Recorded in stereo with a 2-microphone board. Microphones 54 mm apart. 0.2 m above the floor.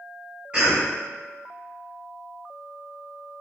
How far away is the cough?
About 1.4 m.